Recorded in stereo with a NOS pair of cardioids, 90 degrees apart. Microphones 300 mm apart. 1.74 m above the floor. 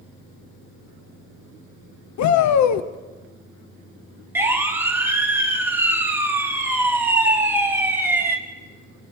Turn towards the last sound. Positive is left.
turn(degrees=-5)